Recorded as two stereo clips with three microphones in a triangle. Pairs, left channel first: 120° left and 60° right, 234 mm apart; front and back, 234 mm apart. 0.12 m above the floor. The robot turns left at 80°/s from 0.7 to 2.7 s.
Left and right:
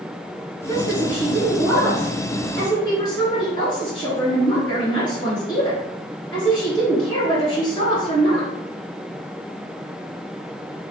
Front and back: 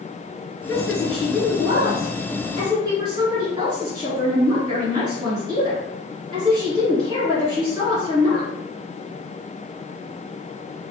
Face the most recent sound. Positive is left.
turn(degrees=145)